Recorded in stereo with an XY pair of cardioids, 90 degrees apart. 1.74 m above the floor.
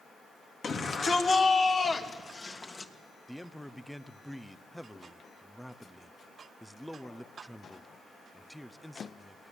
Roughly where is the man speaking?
Ahead.